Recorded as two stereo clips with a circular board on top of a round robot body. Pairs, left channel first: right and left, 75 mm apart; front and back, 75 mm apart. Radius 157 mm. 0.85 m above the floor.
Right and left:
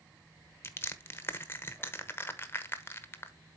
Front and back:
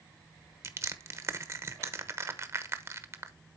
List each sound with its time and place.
0.6 s crushing: 140° right, 1.4 m